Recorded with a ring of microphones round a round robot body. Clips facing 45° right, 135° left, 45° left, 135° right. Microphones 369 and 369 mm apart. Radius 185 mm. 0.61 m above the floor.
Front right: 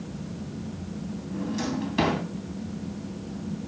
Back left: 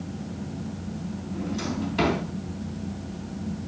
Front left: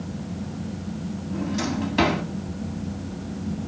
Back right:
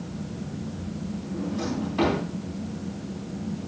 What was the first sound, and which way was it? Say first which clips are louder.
A drawer: front right 1 dB, front left 2 dB; 15° left.